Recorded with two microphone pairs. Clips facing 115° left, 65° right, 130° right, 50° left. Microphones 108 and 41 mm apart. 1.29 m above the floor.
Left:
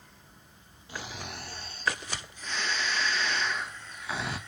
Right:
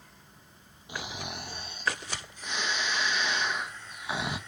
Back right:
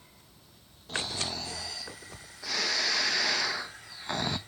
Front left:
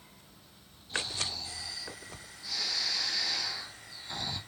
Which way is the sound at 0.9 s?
140° right.